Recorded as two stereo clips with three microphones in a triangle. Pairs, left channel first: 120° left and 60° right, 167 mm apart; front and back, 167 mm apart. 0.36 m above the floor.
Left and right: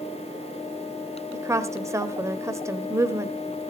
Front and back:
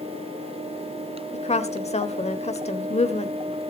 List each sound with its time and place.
1.3 s a woman speaking: 5° left, 1.2 m